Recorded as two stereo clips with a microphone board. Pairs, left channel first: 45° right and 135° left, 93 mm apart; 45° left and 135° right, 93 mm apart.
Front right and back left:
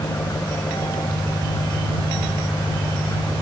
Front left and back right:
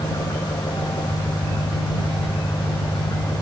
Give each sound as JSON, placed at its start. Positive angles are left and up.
{"t": 0.0, "sound": "an engine running", "azimuth_deg": 10}